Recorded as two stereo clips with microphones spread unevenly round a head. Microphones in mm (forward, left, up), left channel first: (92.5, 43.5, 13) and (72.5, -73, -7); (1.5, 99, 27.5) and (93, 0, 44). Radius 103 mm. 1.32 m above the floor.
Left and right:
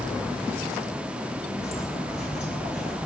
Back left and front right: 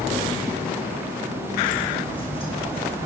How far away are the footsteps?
About 3.5 m.